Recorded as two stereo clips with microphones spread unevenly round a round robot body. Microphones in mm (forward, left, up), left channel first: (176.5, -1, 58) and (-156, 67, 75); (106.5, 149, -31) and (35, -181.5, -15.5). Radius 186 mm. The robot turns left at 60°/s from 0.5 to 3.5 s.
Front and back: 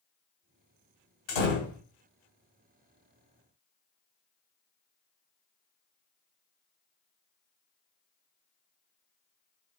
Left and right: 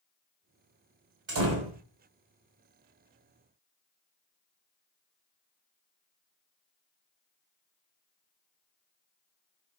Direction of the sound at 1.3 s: 40° right.